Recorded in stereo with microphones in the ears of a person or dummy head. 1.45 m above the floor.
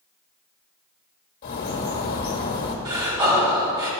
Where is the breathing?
20° right (ahead or behind), 1.7 m.